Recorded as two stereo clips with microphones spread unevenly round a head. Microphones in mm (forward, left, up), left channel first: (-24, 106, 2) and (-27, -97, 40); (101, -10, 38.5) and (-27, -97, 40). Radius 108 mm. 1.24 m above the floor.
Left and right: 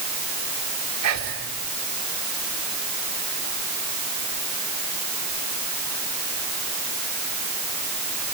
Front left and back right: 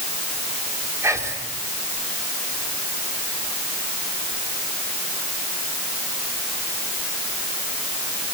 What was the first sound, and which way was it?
Whispering, 75° right.